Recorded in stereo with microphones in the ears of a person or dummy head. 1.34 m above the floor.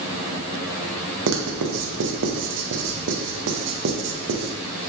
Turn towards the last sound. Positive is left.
turn(degrees=-60)  # may be behind; listen again after turning